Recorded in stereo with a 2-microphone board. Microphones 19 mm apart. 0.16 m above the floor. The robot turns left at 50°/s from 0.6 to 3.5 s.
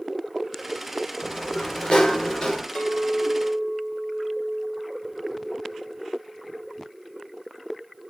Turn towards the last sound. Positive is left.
turn(degrees=20)